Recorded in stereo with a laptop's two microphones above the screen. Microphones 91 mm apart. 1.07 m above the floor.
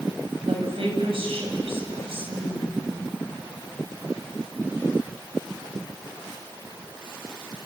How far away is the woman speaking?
About 7 m.